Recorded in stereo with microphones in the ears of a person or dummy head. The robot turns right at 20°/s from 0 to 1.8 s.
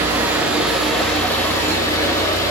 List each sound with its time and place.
0.0 s running water: 20° right, 0.9 m; by 2.5 s 20° left, 0.9 m